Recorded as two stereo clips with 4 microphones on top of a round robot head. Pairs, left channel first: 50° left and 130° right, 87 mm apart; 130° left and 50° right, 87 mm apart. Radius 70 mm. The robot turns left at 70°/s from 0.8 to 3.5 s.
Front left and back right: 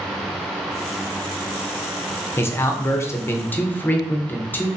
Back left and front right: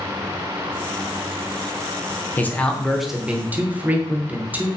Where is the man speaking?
85° left, 0.5 m; by 4.7 s 5° left, 0.5 m.